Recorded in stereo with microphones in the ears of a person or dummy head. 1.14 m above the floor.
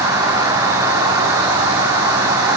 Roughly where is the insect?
Centre.